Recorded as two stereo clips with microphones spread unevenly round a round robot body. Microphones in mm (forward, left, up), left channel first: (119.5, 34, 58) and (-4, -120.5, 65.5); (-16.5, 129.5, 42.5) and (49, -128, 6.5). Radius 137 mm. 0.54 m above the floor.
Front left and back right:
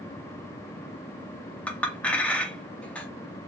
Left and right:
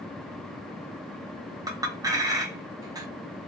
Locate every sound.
1.7 s a clink: 25° right, 0.7 m